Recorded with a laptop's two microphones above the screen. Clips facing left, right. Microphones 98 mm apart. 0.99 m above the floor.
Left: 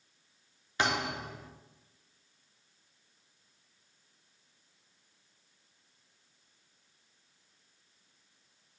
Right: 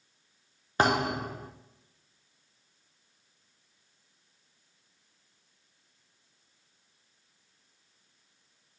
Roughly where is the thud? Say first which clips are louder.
Right 6 dB; right.